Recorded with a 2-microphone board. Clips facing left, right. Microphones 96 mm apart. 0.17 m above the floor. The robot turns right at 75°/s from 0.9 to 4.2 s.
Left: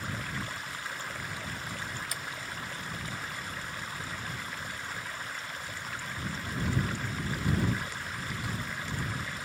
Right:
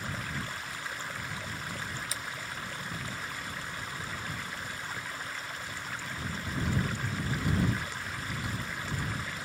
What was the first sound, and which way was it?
A splash, 55° left (ahead or behind).